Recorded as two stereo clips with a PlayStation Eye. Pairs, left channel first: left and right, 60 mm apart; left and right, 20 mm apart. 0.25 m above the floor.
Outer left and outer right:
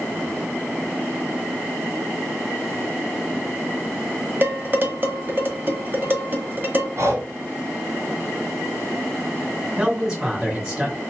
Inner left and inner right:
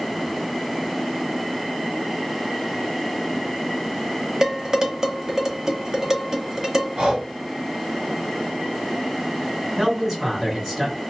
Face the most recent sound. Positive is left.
turn(degrees=-15)  # may be behind; listen again after turning